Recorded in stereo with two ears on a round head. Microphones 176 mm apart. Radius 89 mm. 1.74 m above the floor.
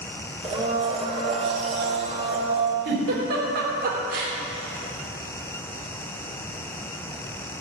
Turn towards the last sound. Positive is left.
turn(degrees=-55)  # may be behind; listen again after turning